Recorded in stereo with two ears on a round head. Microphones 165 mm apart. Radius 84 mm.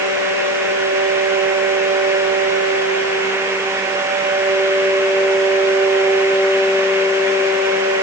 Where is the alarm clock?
No alarm clock in this recording.